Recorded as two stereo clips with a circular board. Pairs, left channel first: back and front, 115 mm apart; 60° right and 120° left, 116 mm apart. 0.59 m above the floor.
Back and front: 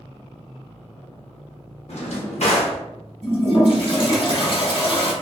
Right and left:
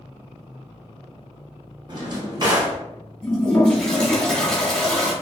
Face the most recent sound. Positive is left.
turn(degrees=-145)